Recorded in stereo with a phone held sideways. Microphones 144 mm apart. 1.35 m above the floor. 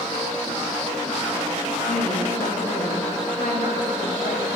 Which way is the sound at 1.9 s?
85° left.